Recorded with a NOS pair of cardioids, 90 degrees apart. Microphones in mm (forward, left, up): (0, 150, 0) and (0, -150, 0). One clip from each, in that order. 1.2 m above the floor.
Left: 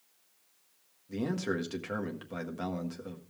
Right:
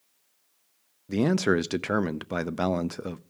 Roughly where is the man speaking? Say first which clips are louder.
Right 10 dB; ahead right.